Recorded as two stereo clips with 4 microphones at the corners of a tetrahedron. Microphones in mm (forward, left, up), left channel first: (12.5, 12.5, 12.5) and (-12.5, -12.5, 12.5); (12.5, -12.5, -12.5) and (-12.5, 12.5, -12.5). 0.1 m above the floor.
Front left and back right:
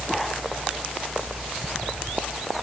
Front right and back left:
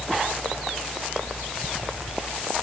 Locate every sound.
Only background noise.